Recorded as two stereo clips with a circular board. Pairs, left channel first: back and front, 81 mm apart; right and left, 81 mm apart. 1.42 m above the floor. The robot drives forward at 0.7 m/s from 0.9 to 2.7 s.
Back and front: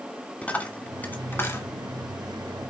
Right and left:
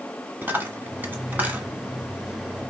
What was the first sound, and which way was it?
A dropped coin, 125° left.